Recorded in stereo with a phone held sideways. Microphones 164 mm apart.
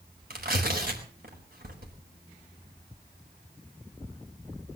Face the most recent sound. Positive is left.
turn(degrees=-60)  # may be behind; listen again after turning